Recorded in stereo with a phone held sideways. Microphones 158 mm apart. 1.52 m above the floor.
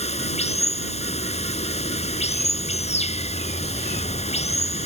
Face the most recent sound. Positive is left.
turn(degrees=40)  # may be behind; listen again after turning